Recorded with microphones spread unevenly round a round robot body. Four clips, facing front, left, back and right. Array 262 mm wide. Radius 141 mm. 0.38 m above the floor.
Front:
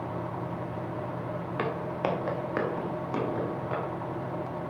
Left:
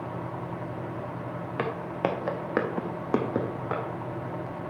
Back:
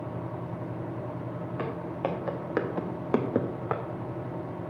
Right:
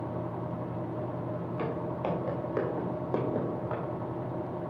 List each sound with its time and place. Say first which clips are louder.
1.6 s footsteps: left 5 dB, front 2 dB; 70° left, 2.5 m; by 3.8 s 155° left, 1.7 m